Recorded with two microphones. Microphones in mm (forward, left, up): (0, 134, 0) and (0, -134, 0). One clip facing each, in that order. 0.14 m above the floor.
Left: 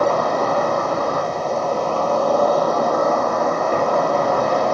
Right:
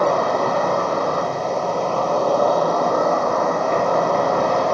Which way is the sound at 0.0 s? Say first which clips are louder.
Even; 10° left (ahead or behind).